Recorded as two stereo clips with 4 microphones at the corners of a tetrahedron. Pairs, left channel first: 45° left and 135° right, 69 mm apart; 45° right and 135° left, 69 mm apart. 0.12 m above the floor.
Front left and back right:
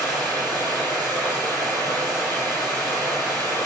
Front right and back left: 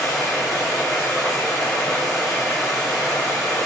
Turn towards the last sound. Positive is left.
turn(degrees=-140)